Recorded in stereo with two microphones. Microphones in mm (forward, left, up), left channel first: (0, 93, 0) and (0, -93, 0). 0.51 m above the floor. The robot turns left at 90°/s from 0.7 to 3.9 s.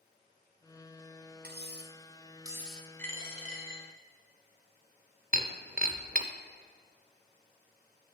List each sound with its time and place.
1.4 s cutlery clinking: 65° right, 0.7 m; by 2.9 s 165° left, 0.7 m
3.0 s a dropped coin: 175° left, 1.8 m; by 3.8 s 100° left, 1.8 m
5.3 s breaking glass: 50° right (ahead or behind), 0.5 m